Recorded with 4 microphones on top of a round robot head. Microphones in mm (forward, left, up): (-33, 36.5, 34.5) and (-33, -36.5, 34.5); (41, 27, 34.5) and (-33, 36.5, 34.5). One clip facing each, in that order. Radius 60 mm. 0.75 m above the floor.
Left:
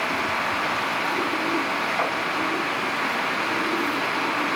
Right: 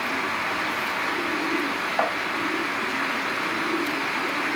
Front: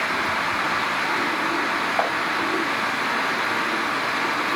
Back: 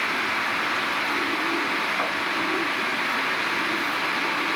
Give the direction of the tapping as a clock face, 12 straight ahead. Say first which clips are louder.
Right 3 dB, front 4 dB; 1 o'clock.